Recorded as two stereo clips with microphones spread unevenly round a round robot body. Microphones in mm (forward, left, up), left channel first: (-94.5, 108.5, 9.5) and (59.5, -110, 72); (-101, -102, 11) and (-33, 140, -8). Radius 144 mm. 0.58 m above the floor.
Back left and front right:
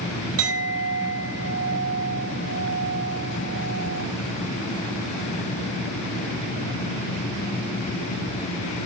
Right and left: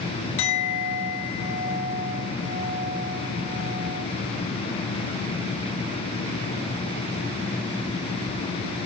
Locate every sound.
0.4 s a clink: 95° right, 2.5 m